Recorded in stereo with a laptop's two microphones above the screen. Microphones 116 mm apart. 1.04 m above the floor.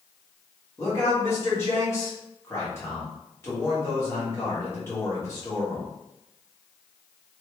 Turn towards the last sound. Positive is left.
turn(degrees=20)  # may be behind; listen again after turning